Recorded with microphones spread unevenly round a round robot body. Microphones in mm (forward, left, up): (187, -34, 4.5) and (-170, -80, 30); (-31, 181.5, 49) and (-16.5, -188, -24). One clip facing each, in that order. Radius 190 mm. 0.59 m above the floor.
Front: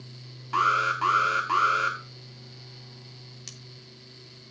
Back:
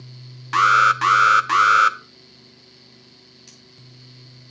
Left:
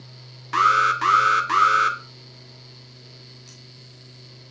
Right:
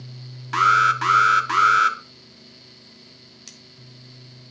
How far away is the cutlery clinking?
About 1.5 m.